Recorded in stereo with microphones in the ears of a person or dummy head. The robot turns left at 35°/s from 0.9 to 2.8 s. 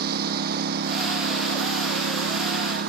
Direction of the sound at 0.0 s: 60° right.